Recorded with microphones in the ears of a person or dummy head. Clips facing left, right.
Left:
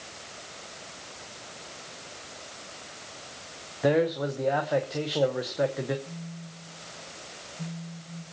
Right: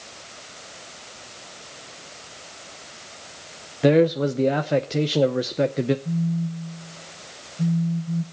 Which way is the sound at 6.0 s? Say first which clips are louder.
Right 16 dB; 50° right (ahead or behind).